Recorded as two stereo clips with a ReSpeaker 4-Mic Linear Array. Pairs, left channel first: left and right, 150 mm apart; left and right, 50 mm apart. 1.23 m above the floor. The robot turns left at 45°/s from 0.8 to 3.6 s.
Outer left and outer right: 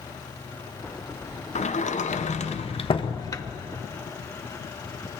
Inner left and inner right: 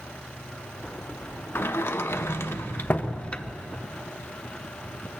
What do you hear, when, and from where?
1.6 s a sliding door: 110° left, 0.8 m; by 3.5 s 20° left, 0.8 m